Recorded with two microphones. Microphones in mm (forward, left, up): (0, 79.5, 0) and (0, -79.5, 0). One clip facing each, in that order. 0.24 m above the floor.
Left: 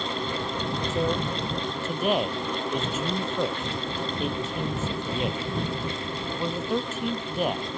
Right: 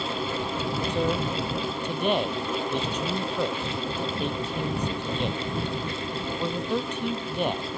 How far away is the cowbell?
I don't hear a cowbell.